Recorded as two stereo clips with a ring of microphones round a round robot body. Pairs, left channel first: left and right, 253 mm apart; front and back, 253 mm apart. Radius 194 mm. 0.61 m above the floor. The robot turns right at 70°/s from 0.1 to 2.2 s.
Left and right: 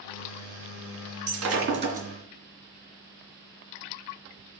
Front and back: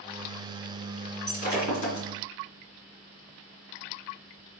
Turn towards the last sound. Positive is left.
turn(degrees=-15)